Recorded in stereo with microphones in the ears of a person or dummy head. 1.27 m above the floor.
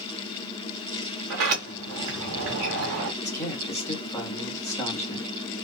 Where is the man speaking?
15° left (ahead or behind), 1.7 m.